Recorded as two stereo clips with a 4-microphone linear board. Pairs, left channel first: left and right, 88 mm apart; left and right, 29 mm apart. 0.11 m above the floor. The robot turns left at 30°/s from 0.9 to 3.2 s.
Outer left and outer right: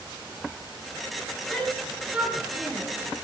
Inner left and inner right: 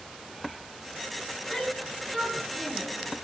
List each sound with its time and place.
1.5 s a shout: 10° left (ahead or behind), 9 m; by 2.9 s 35° right (ahead or behind), 9 m